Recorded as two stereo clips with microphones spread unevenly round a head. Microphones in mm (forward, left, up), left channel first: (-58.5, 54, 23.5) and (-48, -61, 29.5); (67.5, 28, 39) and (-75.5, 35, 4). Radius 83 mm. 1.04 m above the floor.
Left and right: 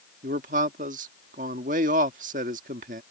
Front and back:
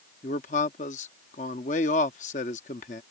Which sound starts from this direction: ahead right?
A man speaking, at 0.2 s.